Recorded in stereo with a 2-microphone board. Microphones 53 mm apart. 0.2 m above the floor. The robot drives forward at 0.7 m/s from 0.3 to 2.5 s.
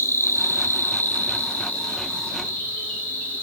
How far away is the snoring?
No snoring in this recording.